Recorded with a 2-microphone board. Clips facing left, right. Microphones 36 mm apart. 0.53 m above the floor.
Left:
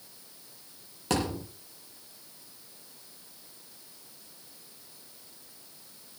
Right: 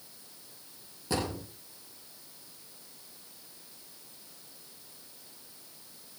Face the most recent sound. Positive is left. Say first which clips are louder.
# left 3 dB
turn(degrees=75)  # may be behind; listen again after turning